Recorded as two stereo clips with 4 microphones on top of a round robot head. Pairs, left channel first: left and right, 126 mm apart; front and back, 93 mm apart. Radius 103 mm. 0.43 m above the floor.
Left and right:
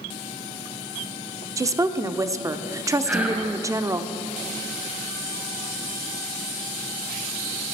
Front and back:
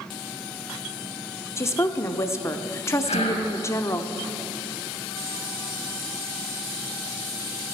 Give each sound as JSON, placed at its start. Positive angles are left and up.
{"t": 1.6, "sound": "a woman speaking", "azimuth_deg": -40, "distance_m": 0.9}
{"t": 3.0, "sound": "whispering", "azimuth_deg": -10, "distance_m": 4.5}